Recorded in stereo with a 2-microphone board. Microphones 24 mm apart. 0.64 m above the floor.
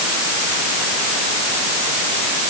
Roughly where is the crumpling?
I don't hear crumpling.